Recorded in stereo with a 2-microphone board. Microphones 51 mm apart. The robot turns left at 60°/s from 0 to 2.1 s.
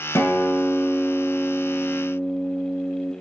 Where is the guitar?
65° left, 0.6 m; by 3.1 s 55° right, 0.6 m.